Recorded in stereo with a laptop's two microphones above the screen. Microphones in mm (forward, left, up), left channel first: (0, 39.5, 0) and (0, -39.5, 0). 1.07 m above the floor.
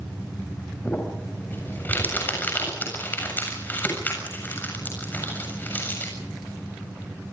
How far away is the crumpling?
About 7 m.